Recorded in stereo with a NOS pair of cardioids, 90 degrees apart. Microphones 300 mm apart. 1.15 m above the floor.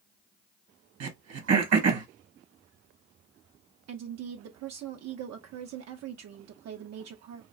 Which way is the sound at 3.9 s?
60° right.